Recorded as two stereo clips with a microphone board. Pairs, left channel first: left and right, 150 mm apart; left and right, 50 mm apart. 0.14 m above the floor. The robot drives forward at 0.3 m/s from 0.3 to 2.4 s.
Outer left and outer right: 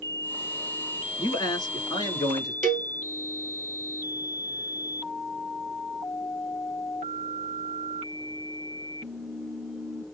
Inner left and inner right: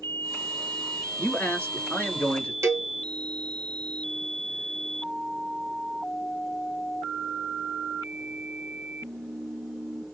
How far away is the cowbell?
About 0.8 m.